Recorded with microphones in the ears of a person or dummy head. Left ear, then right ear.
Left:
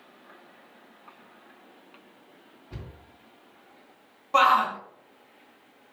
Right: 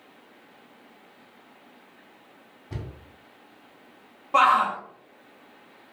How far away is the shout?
About 0.7 m.